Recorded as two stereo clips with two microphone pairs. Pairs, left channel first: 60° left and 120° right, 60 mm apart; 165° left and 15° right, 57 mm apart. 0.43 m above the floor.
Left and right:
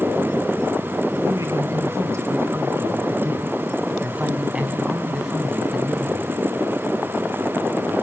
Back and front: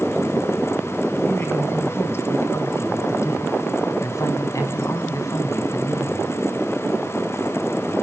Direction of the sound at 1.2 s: 145° right.